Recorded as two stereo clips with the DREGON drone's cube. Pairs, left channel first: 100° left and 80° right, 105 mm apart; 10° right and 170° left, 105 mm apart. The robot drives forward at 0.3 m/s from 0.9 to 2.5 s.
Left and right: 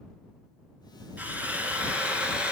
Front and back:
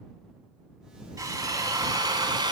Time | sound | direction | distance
1.2 | a drill | 145° right | 1.4 m